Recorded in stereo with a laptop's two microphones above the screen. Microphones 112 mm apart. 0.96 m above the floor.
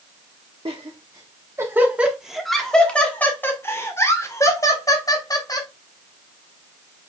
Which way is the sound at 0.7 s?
50° right (ahead or behind).